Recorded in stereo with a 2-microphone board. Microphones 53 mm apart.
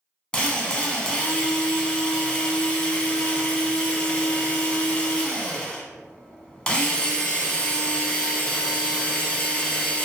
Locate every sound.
0.3 s a drill: 20° left (ahead or behind), 0.6 m